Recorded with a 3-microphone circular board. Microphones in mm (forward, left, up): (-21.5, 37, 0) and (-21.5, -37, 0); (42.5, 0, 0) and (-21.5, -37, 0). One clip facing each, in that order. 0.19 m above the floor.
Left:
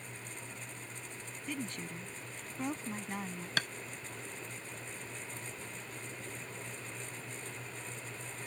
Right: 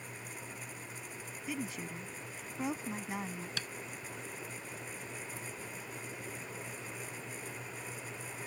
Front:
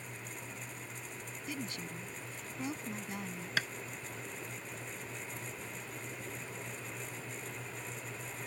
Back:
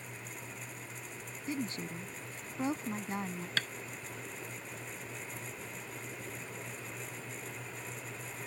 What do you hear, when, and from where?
1.5 s a woman speaking: 170° right
3.6 s tapping: 110° left